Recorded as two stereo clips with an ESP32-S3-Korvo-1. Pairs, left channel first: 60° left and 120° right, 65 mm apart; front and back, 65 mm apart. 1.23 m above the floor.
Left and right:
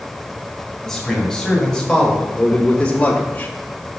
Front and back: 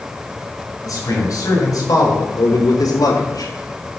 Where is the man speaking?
25° right, 5.5 m; by 3.9 s 15° left, 1.4 m.